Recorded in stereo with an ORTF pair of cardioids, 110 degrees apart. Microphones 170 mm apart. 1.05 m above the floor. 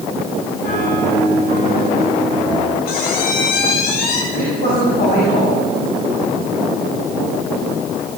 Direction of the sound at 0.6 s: 65° left.